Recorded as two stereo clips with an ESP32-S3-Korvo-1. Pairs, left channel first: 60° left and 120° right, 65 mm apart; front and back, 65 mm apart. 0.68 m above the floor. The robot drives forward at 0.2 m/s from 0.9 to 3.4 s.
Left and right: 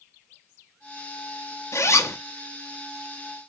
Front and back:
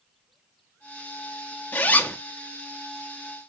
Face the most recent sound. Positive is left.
turn(degrees=90)